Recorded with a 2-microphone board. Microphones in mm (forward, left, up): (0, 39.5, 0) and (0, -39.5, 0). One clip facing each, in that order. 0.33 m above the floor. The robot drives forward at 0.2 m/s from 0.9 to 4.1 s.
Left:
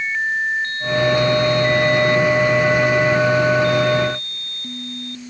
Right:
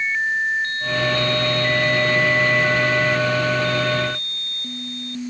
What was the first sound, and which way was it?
Only background noise.